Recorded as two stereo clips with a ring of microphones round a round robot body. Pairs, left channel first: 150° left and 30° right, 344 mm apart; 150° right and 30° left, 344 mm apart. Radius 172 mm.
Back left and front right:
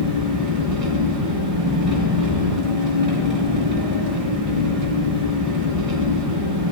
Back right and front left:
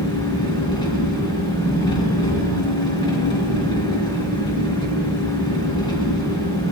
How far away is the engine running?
About 3 m.